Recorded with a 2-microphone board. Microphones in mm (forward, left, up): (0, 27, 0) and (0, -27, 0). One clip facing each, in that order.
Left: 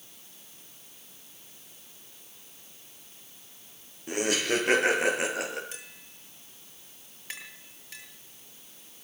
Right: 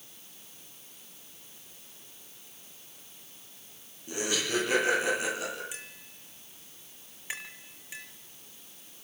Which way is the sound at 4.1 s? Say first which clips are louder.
Left 4 dB; 65° left (ahead or behind).